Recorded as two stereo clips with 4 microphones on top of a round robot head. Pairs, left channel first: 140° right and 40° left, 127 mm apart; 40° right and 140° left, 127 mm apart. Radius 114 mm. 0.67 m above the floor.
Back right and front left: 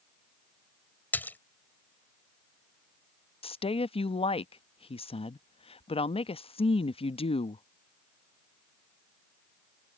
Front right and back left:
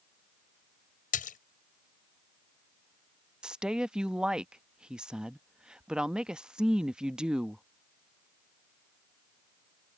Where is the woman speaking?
140° right.